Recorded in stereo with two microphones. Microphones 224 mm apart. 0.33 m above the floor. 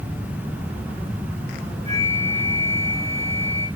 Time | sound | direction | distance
1.9 | a flute | 30° right (ahead or behind) | 4 m